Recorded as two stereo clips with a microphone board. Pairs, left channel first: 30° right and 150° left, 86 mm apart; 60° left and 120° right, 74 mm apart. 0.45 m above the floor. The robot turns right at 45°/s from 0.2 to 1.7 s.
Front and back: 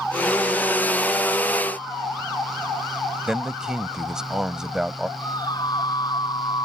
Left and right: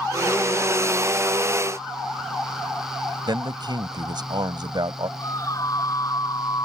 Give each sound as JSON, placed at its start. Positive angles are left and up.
{"t": 3.3, "sound": "a man speaking", "azimuth_deg": -125}
{"t": 5.2, "sound": "a scream", "azimuth_deg": 15}